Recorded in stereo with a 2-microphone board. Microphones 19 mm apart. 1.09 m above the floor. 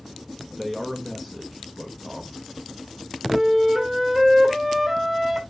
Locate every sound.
0.5 s a man speaking: 5° right (ahead or behind), 1.0 m
3.3 s a flute: 15° right (ahead or behind), 1.8 m